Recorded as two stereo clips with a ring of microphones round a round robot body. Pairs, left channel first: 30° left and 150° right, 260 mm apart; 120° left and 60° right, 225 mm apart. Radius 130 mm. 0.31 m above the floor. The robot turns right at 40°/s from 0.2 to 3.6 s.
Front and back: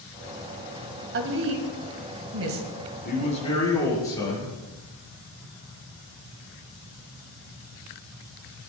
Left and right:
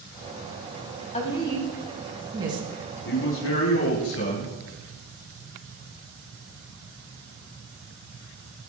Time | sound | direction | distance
1.1 | a woman speaking | 175° left | 2 m
3.0 | a man speaking | 85° left | 6.5 m